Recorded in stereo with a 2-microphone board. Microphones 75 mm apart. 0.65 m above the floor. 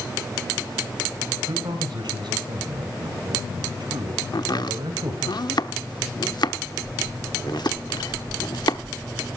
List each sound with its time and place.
1.5 s a man speaking: 70° right (ahead or behind), 3 m
4.3 s chopping: 65° left (ahead or behind), 1.0 m